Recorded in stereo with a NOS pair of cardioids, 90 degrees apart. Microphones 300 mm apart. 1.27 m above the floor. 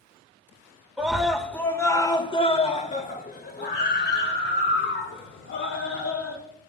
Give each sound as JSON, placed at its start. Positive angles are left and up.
{"t": 1.0, "sound": "a scream", "azimuth_deg": -5, "distance_m": 2.5}